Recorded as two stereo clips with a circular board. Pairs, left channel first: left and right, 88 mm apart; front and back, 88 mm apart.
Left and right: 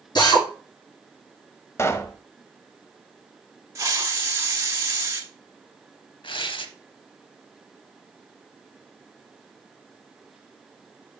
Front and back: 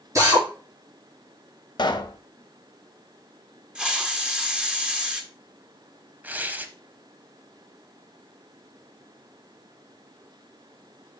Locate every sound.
0.1 s a drill: 125° left, 4.5 m
1.8 s a pop: 30° left, 0.7 m
3.8 s a hiss: 110° right, 1.2 m
6.2 s tearing paper: 110° left, 0.8 m